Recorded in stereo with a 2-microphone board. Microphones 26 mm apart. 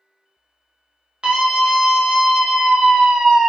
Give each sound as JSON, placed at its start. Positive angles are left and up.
{"t": 1.2, "sound": "a scream", "side_deg": -35, "distance_m": 1.1}